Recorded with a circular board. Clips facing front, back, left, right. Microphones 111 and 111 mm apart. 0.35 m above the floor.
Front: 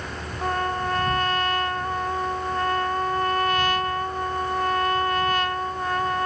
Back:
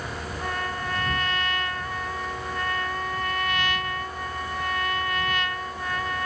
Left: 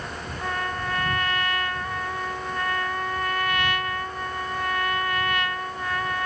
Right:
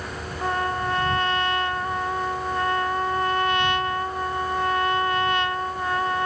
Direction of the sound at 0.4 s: 40° right.